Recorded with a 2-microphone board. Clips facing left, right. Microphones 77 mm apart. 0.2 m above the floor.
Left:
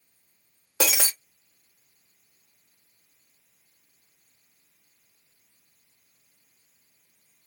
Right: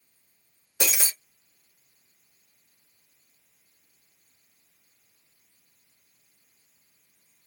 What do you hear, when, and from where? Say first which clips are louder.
0.8 s breaking glass: left 4 dB; 85° left, 0.7 m